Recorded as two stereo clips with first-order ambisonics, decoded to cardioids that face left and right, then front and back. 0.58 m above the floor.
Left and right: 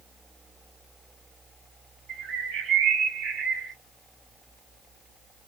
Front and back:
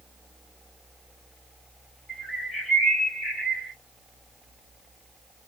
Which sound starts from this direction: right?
A bird, at 2.1 s.